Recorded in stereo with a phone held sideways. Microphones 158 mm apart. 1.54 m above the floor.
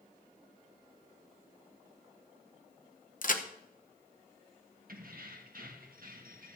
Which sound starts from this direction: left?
A crack, at 3.2 s.